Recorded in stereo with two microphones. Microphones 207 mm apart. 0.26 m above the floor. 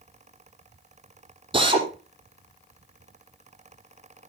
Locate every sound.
1.5 s a drill: 25° right (ahead or behind), 4 m